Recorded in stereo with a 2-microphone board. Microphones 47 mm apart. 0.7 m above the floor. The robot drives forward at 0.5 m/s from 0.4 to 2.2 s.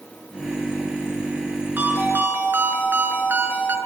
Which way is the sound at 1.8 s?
40° right (ahead or behind).